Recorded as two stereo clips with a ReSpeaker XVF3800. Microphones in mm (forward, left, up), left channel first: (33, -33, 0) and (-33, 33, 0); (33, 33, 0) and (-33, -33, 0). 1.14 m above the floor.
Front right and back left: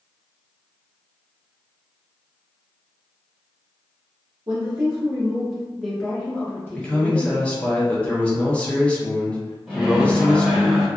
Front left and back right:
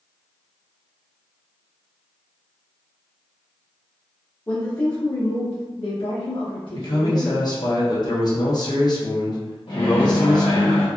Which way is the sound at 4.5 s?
100° left.